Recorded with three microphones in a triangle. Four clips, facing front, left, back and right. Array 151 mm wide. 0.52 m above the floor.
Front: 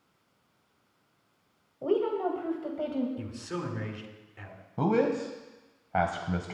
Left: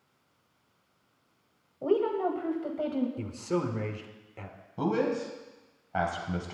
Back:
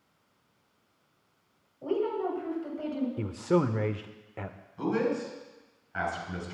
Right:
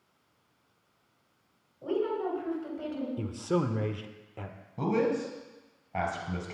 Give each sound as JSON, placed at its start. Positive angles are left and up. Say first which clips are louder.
{"t": 1.8, "sound": "a woman speaking", "louder": "left 4 dB, front 2 dB", "azimuth_deg": 55, "distance_m": 2.5}
{"t": 3.2, "sound": "a man speaking", "louder": "right 1 dB, back 10 dB", "azimuth_deg": -170, "distance_m": 1.1}
{"t": 4.8, "sound": "a man speaking", "louder": "even, front 3 dB", "azimuth_deg": 15, "distance_m": 2.5}